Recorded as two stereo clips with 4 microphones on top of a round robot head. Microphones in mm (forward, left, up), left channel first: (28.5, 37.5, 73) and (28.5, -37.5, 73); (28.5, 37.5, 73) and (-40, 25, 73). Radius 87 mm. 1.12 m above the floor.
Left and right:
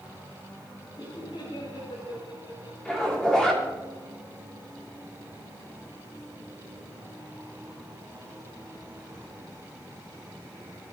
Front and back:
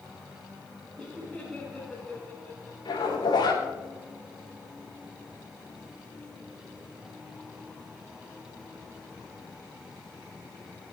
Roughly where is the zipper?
Ahead.